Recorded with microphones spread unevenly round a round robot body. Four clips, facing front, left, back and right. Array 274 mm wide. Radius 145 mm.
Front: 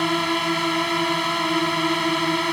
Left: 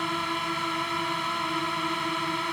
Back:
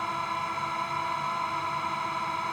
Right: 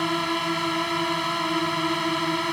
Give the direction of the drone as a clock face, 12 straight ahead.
1 o'clock.